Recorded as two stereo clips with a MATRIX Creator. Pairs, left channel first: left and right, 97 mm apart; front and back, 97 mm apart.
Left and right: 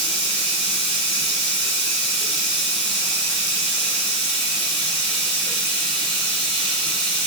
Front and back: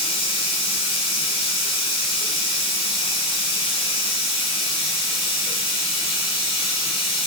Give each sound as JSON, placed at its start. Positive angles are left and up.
{"t": 0.0, "sound": "running water", "azimuth_deg": 10, "distance_m": 3.5}